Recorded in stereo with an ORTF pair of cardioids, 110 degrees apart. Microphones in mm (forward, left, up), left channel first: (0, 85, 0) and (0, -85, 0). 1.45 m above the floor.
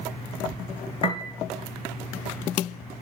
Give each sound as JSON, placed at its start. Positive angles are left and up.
{"t": 1.0, "sound": "a piano", "azimuth_deg": 35, "distance_m": 1.2}